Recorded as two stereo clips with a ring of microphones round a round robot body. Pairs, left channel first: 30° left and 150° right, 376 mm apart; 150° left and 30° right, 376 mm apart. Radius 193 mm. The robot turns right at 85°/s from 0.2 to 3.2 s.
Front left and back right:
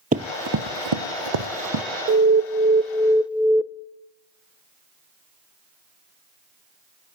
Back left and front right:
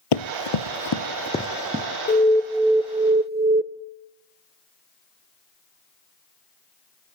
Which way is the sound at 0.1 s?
140° left.